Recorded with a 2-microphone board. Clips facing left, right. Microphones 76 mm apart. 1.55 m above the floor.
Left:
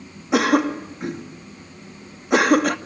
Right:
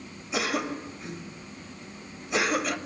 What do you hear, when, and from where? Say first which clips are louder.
0.3 s a cough: left 11 dB; 65° left (ahead or behind), 2.5 m